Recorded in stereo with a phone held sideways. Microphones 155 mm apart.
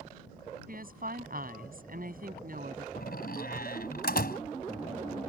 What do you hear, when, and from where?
0.7 s a woman speaking: 70° right (ahead or behind)
3.0 s a door slam: 80° left